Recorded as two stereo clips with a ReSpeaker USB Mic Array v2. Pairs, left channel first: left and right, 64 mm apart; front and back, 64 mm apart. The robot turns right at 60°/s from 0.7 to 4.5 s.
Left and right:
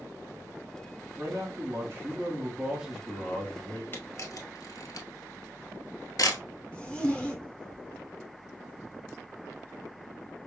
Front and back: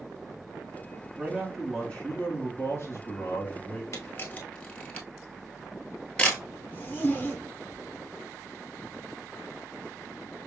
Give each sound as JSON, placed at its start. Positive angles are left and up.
{"t": 1.2, "sound": "a man speaking", "azimuth_deg": -110, "distance_m": 1.5}
{"t": 3.9, "sound": "a camera shutter", "azimuth_deg": 35, "distance_m": 1.0}
{"t": 6.7, "sound": "a zipper", "azimuth_deg": 30, "distance_m": 1.1}